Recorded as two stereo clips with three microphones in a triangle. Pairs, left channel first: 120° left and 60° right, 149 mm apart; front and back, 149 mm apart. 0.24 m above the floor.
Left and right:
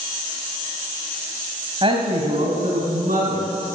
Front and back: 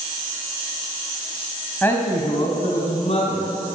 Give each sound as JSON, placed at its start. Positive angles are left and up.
{"t": 1.8, "sound": "a man speaking", "azimuth_deg": -70, "distance_m": 1.4}